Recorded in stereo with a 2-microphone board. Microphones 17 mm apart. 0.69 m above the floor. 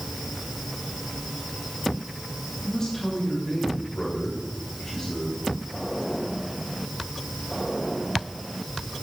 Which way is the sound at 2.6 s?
45° left (ahead or behind).